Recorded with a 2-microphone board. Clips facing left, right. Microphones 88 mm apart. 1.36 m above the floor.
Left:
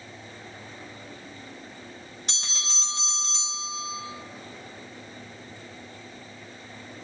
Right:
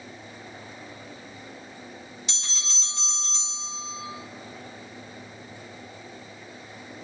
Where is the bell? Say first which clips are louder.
Left 2 dB; 55° left (ahead or behind), 2.5 m.